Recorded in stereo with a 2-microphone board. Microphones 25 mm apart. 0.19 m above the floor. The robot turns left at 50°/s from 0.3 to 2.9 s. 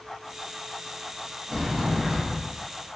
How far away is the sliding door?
About 1.8 m.